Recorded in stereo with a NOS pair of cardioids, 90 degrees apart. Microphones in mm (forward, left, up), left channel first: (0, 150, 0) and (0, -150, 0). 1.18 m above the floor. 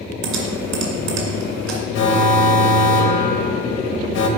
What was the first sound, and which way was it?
Typing on a keyboard, 70° right.